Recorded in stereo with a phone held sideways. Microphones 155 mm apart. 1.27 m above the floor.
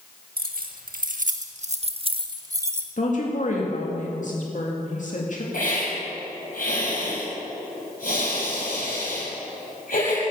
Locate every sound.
0.4 s keys jangling: 80° right, 1.6 m; by 2.9 s 15° right (ahead or behind), 1.2 m
3.0 s a woman speaking: 55° left (ahead or behind), 2 m
5.5 s a hiss: 70° left (ahead or behind), 6 m